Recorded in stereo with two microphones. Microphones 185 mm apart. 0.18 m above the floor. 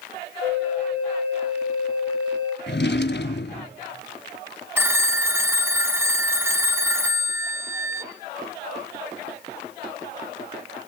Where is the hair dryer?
I don't hear a hair dryer.